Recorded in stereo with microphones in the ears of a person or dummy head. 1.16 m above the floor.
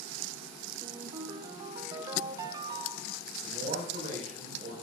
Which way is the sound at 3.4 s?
50° right (ahead or behind).